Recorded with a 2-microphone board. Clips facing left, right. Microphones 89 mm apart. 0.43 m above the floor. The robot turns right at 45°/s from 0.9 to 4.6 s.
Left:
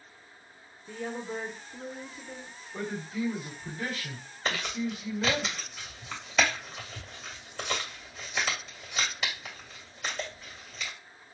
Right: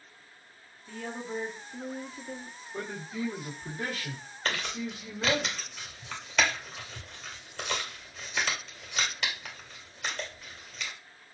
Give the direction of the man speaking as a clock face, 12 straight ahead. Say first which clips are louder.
Left 2 dB; 5 o'clock.